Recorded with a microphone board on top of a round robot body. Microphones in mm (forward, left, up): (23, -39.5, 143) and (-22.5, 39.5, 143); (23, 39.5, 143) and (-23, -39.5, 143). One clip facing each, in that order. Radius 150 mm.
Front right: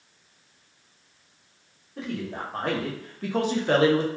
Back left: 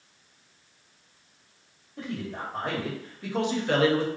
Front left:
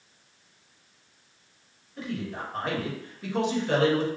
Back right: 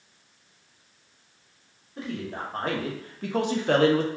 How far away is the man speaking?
About 1.3 m.